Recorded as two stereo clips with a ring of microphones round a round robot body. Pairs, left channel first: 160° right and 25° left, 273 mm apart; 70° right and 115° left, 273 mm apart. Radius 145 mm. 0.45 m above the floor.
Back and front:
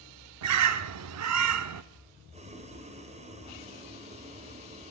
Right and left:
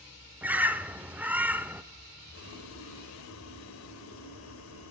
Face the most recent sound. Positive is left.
turn(degrees=-40)